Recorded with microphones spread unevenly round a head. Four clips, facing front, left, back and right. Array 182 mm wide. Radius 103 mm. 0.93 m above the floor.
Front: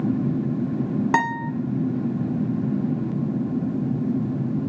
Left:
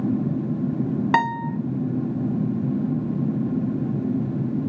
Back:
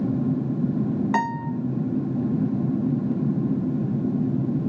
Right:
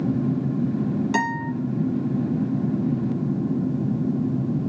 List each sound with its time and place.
1.1 s a guitar: 45° left, 1.6 m